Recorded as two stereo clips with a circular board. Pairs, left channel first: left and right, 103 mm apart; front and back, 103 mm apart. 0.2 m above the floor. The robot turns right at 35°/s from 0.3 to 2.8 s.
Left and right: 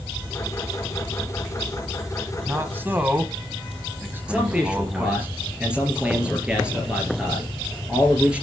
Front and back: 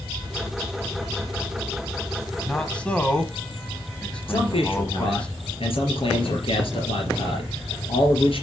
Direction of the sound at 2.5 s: 70° right.